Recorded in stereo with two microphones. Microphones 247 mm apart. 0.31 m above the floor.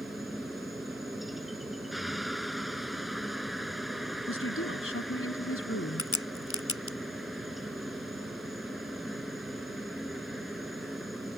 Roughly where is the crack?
Left.